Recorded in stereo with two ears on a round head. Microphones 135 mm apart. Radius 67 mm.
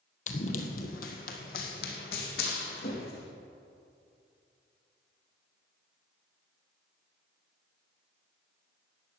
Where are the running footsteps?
55° left (ahead or behind), 1.6 m; by 3.3 s 75° left (ahead or behind), 3 m.